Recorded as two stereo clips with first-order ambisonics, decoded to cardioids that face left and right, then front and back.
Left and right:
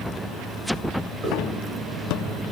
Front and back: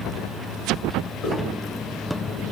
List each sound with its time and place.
1.2 s a hiss: 30° right, 0.9 m